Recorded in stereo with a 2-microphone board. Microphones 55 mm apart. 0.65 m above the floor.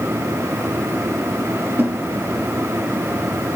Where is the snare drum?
30° right (ahead or behind), 4 m.